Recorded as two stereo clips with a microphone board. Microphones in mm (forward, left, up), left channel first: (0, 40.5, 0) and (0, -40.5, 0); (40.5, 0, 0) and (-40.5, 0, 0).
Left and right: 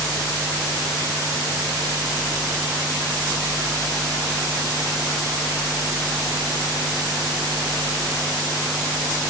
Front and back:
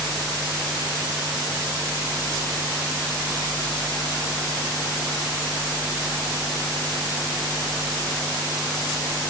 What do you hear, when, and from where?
Only background noise.